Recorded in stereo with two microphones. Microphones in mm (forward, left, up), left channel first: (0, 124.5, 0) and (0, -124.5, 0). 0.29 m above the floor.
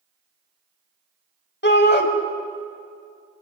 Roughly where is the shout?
Left.